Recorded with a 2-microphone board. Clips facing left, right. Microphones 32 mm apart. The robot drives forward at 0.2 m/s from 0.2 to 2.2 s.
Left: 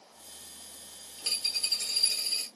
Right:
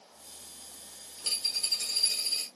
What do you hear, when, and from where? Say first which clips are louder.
1.2 s a dropped coin: left 1 dB; 15° left (ahead or behind), 1.5 m; by 2.5 s 10° left (ahead or behind), 1.7 m